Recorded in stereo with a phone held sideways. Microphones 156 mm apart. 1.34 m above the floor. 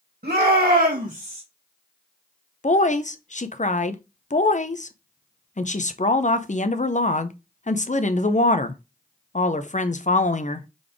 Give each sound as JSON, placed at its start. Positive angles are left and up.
{"t": 0.2, "sound": "a shout", "side_deg": -75, "distance_m": 1.7}
{"t": 2.6, "sound": "a woman speaking", "side_deg": 50, "distance_m": 0.6}